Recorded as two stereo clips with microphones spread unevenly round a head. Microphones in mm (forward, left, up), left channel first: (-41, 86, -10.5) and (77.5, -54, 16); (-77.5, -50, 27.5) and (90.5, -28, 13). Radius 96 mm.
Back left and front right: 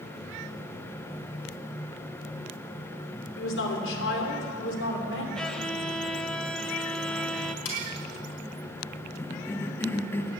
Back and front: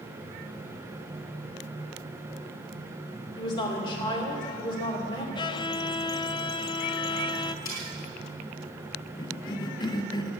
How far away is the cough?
About 0.8 m.